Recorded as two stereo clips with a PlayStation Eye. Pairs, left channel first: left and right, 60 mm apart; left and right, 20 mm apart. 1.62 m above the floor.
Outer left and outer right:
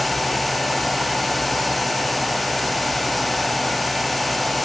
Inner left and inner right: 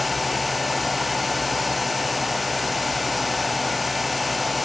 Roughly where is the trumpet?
No trumpet in this recording.